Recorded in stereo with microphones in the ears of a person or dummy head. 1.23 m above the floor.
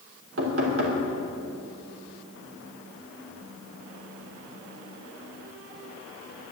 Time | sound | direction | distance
0.4 | knocking | 75° right (ahead or behind) | 3 m